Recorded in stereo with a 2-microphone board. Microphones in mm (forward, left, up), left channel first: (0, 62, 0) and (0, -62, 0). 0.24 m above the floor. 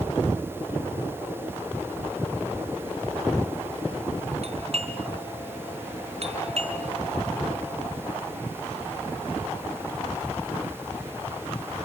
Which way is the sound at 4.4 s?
60° right (ahead or behind).